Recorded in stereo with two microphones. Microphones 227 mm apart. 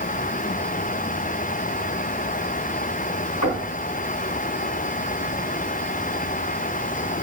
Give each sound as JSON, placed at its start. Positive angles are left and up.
{"t": 3.4, "sound": "knocking", "side_deg": 80, "distance_m": 4.0}